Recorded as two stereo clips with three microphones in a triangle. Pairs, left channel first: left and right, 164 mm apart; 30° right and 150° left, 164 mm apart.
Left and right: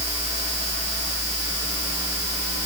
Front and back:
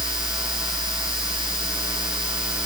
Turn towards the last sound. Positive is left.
No sound to turn to.